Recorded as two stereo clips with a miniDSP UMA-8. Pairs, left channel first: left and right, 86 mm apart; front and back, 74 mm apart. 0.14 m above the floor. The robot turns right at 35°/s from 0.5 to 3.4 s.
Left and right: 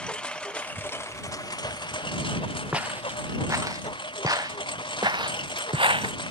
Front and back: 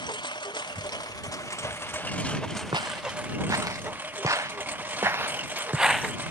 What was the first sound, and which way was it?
A lawn mower, 10° left.